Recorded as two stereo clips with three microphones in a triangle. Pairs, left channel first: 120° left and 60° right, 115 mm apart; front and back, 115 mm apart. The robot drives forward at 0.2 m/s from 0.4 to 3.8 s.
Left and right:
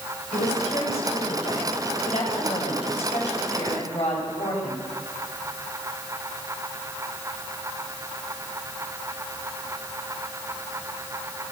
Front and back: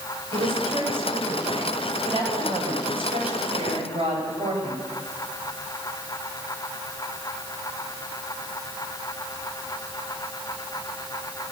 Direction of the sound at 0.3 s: 145° left.